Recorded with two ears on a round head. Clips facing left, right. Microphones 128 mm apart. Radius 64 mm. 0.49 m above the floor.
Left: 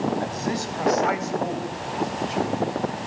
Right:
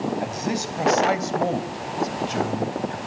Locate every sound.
0.2 s a man speaking: 15° right (ahead or behind), 3.5 m; by 3.0 s 70° right (ahead or behind), 3.5 m